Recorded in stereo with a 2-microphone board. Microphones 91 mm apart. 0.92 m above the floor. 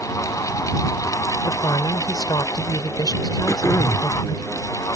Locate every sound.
1.4 s a woman speaking: 45° left (ahead or behind)
3.5 s throat clearing: 35° left (ahead or behind)